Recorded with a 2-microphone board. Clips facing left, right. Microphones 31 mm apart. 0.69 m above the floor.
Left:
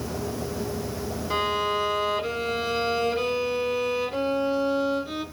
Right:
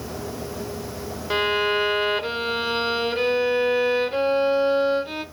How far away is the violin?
About 0.8 m.